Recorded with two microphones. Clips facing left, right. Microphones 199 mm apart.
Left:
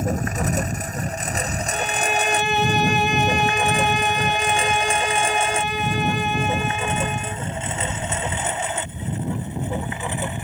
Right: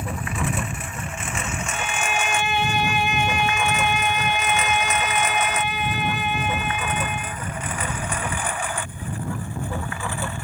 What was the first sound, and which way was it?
A lawn mower, 40° left (ahead or behind).